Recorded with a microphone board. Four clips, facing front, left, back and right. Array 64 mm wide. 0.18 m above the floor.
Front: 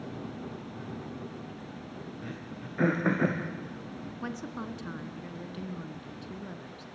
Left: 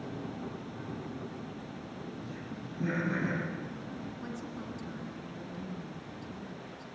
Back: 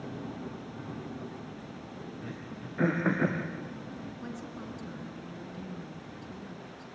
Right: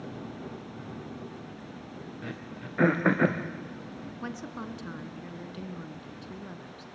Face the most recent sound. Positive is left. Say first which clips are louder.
# right 3 dB, front 3 dB
turn(degrees=-40)